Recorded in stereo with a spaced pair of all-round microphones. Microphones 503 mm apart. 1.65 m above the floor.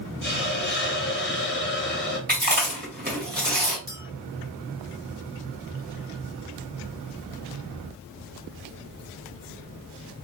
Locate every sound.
0.2 s a hiss: 20° left (ahead or behind), 0.9 m
2.3 s chewing: 20° right (ahead or behind), 1.1 m
3.9 s a clink: 10° right (ahead or behind), 1.1 m